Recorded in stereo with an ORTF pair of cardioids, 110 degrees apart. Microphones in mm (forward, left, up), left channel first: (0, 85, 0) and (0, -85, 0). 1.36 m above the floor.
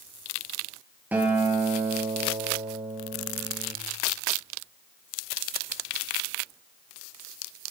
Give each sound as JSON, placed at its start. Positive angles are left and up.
{"t": 1.1, "sound": "a guitar", "azimuth_deg": -10, "distance_m": 5.0}